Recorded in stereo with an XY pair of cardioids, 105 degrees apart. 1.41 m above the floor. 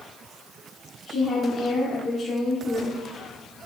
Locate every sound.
1.1 s a woman speaking: 50° left, 1.1 m